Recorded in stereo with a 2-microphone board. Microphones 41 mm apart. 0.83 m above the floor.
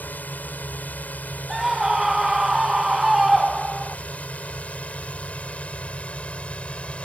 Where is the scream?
10° right (ahead or behind).